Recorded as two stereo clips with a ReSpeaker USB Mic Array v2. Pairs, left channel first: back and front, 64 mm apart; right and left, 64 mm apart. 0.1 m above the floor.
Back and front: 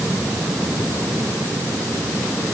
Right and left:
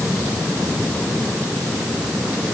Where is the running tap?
No running tap in this recording.